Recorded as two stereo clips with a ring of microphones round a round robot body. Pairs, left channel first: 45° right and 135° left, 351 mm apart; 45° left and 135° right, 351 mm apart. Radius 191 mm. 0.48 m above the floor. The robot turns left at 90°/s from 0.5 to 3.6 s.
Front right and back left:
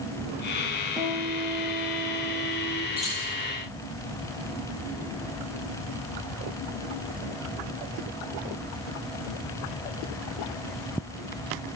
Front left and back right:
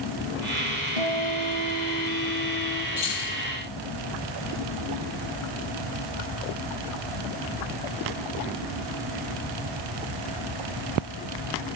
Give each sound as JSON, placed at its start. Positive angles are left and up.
{"t": 1.0, "sound": "a guitar", "azimuth_deg": -135, "distance_m": 3.5}
{"t": 3.0, "sound": "keys jangling", "azimuth_deg": 50, "distance_m": 9.5}